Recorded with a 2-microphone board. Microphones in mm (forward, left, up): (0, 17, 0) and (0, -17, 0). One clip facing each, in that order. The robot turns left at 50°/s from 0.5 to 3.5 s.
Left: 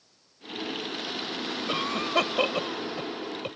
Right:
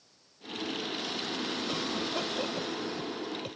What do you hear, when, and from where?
1.7 s a cough: 50° left (ahead or behind); by 3.6 s 40° left (ahead or behind)